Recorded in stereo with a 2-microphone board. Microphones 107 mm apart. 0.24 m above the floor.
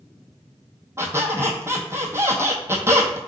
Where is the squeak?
25° right (ahead or behind), 0.7 m.